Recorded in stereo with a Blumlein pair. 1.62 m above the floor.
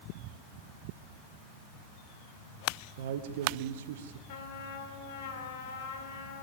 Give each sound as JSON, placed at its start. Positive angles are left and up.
{"t": 3.0, "sound": "a man speaking", "azimuth_deg": -55, "distance_m": 1.2}
{"t": 4.3, "sound": "a trumpet", "azimuth_deg": 55, "distance_m": 3.5}